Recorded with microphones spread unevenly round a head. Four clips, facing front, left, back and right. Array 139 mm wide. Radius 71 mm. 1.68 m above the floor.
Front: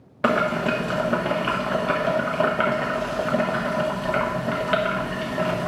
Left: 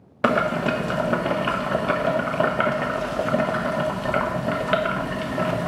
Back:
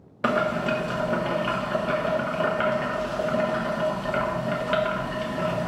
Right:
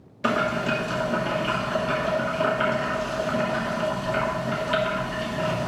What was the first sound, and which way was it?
Boiling, 65° left.